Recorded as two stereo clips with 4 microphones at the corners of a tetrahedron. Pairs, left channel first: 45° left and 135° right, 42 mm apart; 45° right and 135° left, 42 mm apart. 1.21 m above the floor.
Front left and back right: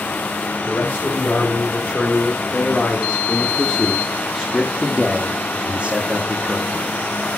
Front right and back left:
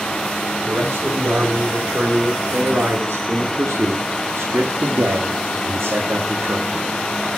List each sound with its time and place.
0.7 s a man speaking: 85° left, 4 m; by 6.9 s 175° left, 2 m